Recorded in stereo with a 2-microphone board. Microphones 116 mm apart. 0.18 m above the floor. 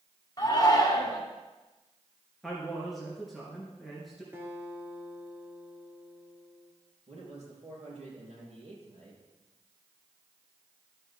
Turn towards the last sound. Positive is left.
turn(degrees=-70)  # may be behind; listen again after turning